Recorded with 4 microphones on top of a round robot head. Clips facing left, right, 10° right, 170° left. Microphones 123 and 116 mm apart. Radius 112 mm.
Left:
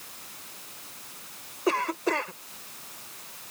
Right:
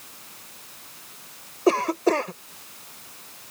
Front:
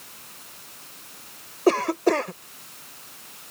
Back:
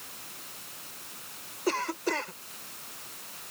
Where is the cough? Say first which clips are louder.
Right 6 dB, front 10 dB; 40° right.